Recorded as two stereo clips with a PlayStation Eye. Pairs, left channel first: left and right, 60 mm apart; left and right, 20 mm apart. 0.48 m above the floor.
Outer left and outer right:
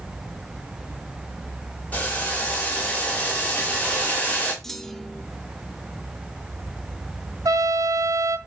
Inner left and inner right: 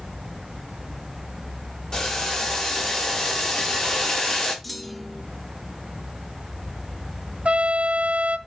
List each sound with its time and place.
1.9 s boiling: 25° left (ahead or behind), 2 m
4.6 s a clunk: 10° left (ahead or behind), 0.6 m
7.5 s a trumpet: 80° right, 0.6 m